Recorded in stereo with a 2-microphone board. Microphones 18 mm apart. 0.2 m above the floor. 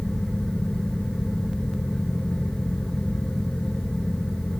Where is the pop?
I don't hear a pop.